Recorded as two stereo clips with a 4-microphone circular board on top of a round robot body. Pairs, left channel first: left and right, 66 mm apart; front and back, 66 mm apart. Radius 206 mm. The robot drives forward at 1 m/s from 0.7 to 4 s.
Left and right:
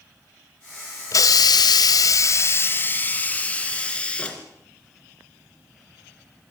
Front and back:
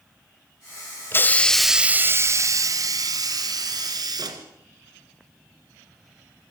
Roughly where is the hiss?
Ahead left.